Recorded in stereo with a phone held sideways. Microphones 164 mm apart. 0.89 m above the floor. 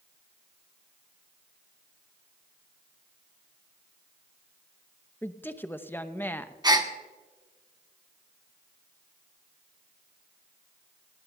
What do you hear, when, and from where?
5.2 s a woman speaking: 15° left (ahead or behind), 0.6 m
6.6 s a gasp: 25° right (ahead or behind), 1.0 m